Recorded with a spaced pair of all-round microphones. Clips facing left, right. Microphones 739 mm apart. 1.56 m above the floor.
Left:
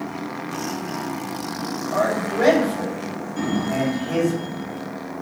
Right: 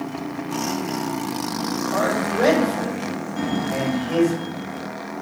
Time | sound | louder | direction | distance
1.9 | a man speaking | left 1 dB | 50° left (ahead or behind) | 5 m
3.4 | a sliding door | left 2 dB | 5° right (ahead or behind) | 2 m